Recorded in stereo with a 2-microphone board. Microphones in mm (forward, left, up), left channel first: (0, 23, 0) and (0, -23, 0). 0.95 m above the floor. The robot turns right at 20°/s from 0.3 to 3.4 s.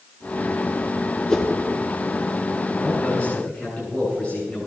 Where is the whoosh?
15° left (ahead or behind), 1.9 m; by 1.5 s 20° left (ahead or behind), 1.9 m.